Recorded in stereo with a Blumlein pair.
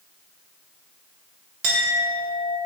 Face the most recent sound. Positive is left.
turn(degrees=-55)